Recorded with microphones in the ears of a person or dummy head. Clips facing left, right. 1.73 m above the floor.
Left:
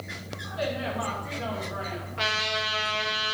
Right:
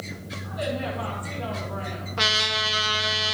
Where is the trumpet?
60° right (ahead or behind), 1.2 m.